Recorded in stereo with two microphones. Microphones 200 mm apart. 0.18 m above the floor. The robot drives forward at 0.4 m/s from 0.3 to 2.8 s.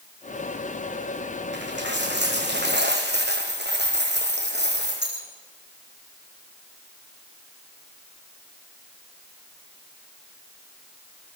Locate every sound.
1.5 s a dropped coin: 60° right (ahead or behind), 5 m; by 5.3 s 55° right (ahead or behind), 5.5 m